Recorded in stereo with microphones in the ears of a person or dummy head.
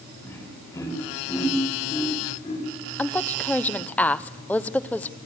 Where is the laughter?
15° left (ahead or behind), 6.5 m; by 2.6 s 35° left (ahead or behind), 6.5 m.